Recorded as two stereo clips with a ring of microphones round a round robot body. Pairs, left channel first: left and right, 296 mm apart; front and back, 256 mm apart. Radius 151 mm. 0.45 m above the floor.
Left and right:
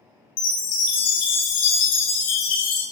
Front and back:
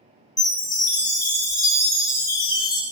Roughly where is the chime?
Left.